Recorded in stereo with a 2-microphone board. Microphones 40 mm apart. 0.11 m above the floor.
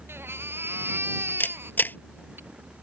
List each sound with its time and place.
0.1 s a baby crying: 75° right (ahead or behind)
1.4 s a camera shutter: 50° left (ahead or behind)